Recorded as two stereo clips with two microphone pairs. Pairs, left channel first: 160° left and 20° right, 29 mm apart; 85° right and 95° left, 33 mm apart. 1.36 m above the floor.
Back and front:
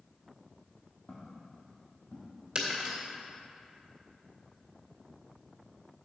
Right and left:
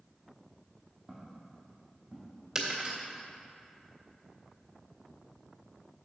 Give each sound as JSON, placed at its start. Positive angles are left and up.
{"t": 1.1, "sound": "footsteps", "azimuth_deg": 165, "distance_m": 2.5}
{"t": 2.5, "sound": "breaking glass", "azimuth_deg": 30, "distance_m": 1.8}